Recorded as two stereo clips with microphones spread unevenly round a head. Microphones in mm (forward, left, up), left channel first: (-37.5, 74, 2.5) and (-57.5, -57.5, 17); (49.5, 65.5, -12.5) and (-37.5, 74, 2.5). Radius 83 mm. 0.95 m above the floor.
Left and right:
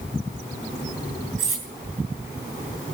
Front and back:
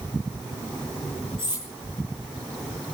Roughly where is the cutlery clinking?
Ahead right.